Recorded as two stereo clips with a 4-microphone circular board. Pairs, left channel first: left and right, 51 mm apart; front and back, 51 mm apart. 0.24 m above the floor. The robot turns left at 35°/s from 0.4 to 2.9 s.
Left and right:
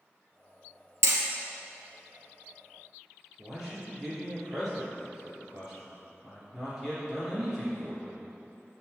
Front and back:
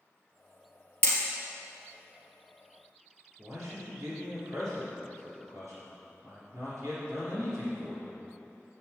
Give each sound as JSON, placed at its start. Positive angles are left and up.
{"t": 1.0, "sound": "hammering", "azimuth_deg": -60, "distance_m": 2.5}
{"t": 3.4, "sound": "a man speaking", "azimuth_deg": -175, "distance_m": 3.0}